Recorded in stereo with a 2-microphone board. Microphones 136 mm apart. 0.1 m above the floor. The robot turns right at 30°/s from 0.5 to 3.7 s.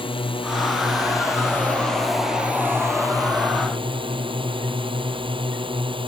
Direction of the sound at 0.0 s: 130° left.